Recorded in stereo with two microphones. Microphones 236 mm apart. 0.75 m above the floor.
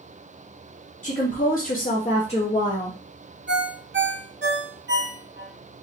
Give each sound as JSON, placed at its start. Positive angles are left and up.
{"t": 1.0, "sound": "a woman speaking", "side_deg": 35, "distance_m": 0.9}
{"t": 3.5, "sound": "a ringtone", "side_deg": -50, "distance_m": 0.7}